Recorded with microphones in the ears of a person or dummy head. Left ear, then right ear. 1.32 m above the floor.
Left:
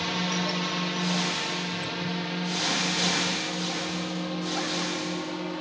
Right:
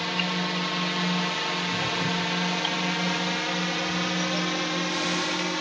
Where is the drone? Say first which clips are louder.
Right 1 dB; 15° right (ahead or behind); by 5.6 s 70° right (ahead or behind).